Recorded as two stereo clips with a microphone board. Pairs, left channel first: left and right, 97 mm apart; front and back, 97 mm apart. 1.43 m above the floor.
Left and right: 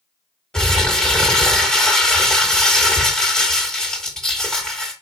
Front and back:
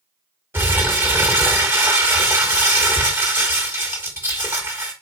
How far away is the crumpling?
About 1.2 m.